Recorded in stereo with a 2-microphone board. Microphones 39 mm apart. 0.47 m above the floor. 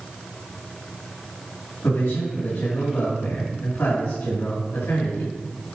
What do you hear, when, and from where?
1.8 s a man speaking: 65° left (ahead or behind), 5 m